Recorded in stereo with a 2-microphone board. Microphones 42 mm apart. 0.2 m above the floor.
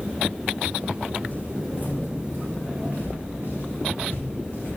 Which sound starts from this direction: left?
Footsteps, at 1.3 s.